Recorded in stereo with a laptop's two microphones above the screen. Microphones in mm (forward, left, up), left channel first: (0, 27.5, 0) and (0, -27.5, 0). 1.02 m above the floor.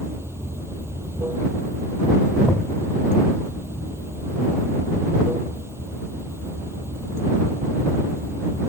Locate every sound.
0.0 s running water: 50° right (ahead or behind)
2.5 s knocking: 35° left (ahead or behind)